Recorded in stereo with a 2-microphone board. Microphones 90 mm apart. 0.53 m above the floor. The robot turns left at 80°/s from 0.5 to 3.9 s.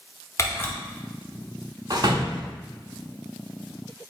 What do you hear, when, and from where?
0.4 s a camera shutter: 35° left (ahead or behind), 0.8 m; by 0.7 s 20° left (ahead or behind), 0.8 m
1.9 s a door slam: 40° right (ahead or behind), 0.7 m; by 2.5 s 50° right (ahead or behind), 0.7 m